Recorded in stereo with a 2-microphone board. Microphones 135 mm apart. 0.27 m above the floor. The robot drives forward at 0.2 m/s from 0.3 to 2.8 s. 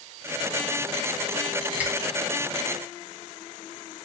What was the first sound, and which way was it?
A finger snap, 10° right (ahead or behind).